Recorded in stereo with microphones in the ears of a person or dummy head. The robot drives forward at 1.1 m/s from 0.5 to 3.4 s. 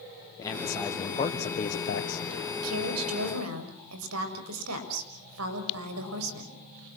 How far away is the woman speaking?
About 6.5 m.